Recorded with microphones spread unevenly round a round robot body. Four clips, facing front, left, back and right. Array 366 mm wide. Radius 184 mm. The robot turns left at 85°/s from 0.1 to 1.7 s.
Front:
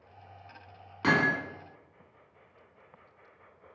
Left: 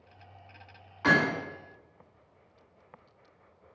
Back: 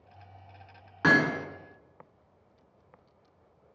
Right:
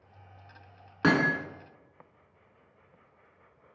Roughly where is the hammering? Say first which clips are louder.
Right 1 dB, back 2 dB; right.